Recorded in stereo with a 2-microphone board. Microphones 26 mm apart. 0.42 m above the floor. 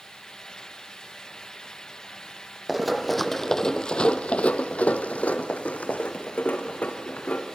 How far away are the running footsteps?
About 1.0 m.